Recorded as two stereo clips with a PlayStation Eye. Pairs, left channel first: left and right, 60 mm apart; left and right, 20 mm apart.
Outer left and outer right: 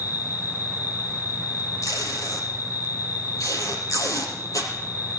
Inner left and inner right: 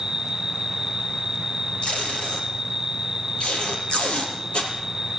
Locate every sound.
0.0 s an insect: 30° right (ahead or behind), 2 m
1.8 s tape being pulled: 70° left (ahead or behind), 4 m